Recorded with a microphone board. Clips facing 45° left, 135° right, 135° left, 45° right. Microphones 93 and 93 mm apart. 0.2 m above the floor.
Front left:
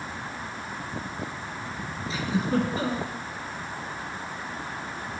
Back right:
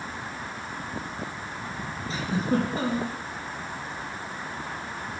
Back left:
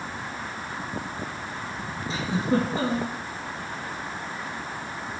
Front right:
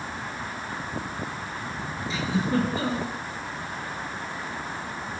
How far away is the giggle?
About 3 m.